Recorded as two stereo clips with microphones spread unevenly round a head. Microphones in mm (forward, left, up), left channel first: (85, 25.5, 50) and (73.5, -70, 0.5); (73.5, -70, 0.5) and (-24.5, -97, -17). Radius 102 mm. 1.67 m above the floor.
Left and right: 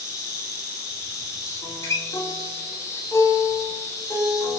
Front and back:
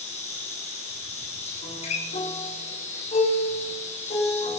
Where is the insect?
30° left, 6.5 m.